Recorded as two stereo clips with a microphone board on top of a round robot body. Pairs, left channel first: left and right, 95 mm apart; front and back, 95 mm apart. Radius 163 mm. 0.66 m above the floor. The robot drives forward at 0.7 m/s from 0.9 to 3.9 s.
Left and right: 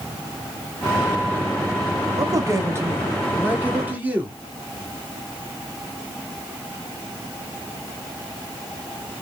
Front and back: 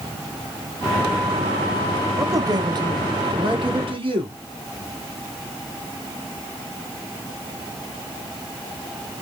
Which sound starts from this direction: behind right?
A man speaking, at 2.2 s.